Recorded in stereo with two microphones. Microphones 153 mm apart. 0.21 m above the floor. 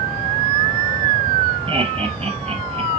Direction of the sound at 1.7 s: 35° right (ahead or behind).